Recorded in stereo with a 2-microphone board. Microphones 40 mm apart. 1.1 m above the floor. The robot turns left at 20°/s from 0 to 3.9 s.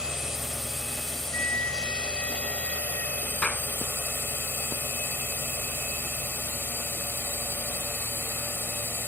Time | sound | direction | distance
0.0 | a drone | 165° right | ?
1.3 | a flute | 90° left | ?
3.4 | a clap | 30° left (ahead or behind) | ?